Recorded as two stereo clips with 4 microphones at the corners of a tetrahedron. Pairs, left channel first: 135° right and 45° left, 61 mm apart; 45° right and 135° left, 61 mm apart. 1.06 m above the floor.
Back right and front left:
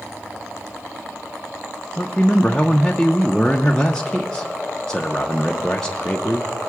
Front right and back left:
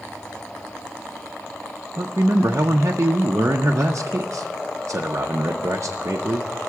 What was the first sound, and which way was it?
A man speaking, 145° left.